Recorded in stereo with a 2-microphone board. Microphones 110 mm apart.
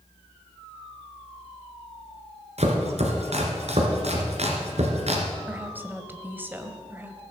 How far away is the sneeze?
No sneeze in this recording.